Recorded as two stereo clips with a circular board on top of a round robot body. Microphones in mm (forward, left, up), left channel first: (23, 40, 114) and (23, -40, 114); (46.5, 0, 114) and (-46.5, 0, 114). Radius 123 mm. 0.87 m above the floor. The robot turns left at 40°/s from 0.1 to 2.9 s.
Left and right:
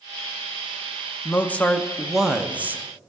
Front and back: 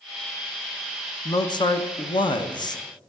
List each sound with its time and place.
1.2 s a man speaking: 35° left, 1.1 m; by 2.8 s 30° right, 1.1 m